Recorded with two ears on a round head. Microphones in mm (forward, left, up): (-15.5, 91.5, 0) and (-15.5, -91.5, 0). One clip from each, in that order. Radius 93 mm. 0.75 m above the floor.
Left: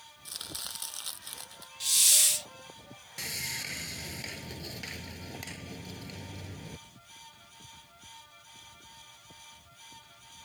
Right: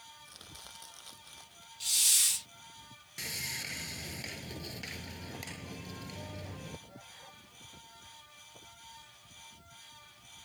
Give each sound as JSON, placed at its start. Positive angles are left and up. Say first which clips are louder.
{"t": 0.2, "sound": "chopping", "louder": "left 15 dB", "side_deg": 65}
{"t": 1.8, "sound": "a hiss", "louder": "left 4 dB", "side_deg": 5}
{"t": 3.2, "sound": "sawing", "louder": "left 2 dB", "side_deg": 5}